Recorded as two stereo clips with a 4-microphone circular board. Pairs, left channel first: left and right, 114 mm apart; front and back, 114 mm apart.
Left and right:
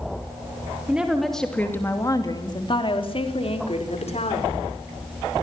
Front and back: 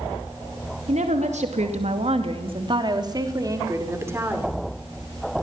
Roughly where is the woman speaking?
Behind.